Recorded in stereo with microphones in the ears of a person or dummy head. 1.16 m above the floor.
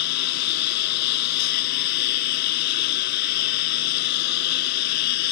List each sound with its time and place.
0.0 s a lawn mower: 60° left (ahead or behind)